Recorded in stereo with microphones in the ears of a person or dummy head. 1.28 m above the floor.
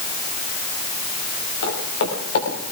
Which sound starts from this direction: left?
Footsteps, at 1.6 s.